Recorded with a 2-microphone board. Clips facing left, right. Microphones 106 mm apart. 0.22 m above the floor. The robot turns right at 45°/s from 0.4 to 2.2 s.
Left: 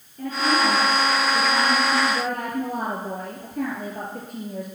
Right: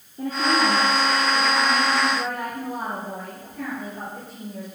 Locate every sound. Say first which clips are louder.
0.2 s a woman speaking: even; 25° right, 3.5 m; by 4.7 s 60° left, 3.5 m